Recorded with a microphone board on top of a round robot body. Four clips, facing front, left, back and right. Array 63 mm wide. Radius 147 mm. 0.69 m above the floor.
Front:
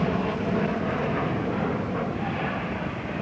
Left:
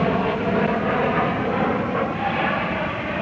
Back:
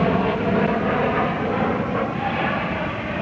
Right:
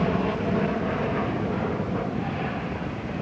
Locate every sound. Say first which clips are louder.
0.0 s an aircraft: left 4 dB, back 6 dB; 135° left; by 3.2 s 115° left